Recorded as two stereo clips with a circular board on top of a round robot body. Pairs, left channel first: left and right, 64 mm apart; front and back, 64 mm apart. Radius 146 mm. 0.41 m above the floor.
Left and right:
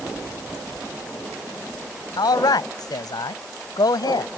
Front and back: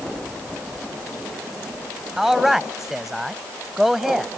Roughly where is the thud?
No thud in this recording.